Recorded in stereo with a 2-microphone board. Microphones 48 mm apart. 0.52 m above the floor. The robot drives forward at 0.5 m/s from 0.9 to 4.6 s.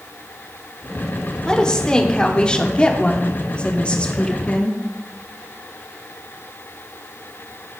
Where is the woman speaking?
15° left (ahead or behind), 1.5 m; by 4.8 s 25° left (ahead or behind), 1.1 m.